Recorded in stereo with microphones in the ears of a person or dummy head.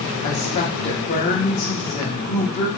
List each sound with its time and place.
0.2 s a woman speaking: 30° left (ahead or behind), 0.8 m